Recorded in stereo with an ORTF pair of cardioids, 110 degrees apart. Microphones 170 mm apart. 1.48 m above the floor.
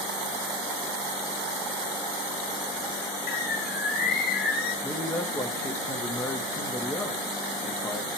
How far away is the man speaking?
About 2.5 m.